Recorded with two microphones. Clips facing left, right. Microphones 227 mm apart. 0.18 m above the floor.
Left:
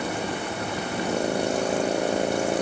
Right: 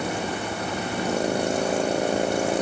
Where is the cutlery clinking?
I don't hear cutlery clinking.